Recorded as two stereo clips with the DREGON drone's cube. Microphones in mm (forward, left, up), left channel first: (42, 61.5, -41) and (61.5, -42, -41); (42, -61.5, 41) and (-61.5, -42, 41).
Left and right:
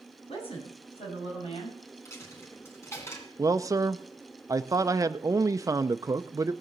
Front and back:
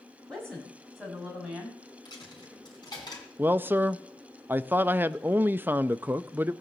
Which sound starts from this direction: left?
A woman speaking, at 0.3 s.